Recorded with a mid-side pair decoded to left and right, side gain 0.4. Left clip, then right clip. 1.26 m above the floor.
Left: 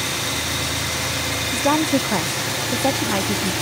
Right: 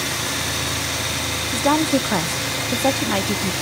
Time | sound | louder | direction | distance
1.5 | a woman speaking | right 1 dB | 10° right | 1.0 m